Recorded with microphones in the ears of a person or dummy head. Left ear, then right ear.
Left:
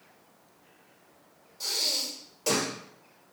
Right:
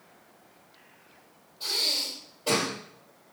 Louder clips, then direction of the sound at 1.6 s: Right 2 dB; 70° left (ahead or behind).